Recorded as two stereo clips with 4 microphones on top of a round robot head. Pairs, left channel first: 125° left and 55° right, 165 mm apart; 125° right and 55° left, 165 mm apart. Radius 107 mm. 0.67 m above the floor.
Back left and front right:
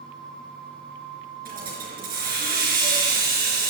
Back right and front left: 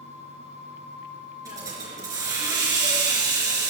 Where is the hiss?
15° right, 4 m.